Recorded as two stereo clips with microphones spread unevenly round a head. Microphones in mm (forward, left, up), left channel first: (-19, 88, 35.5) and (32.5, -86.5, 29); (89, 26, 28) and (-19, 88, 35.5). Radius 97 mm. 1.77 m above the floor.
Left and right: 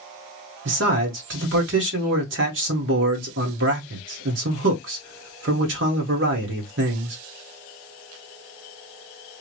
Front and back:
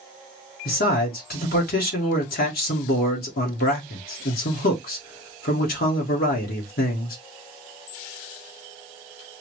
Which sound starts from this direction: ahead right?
A man speaking, at 0.7 s.